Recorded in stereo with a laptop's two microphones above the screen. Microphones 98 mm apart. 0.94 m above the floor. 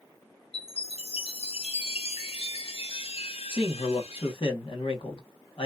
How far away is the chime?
About 0.6 m.